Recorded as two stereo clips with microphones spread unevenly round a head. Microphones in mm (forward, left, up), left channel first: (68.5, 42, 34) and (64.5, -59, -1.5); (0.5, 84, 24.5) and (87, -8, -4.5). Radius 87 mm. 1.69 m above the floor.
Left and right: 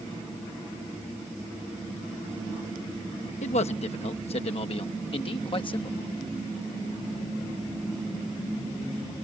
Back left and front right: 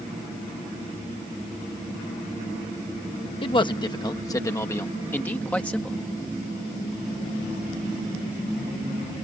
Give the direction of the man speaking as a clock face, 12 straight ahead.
9 o'clock.